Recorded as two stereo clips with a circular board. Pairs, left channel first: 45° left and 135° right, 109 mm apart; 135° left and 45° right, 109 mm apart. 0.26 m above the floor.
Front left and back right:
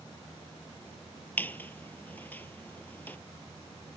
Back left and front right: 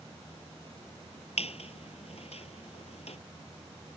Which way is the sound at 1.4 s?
120° left.